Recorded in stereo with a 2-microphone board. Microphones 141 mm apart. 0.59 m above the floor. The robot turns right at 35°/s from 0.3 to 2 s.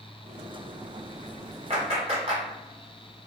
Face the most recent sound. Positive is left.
turn(degrees=-40)  # may be behind; listen again after turning